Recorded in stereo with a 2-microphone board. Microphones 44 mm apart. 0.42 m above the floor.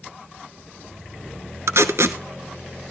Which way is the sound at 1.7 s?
75° right (ahead or behind).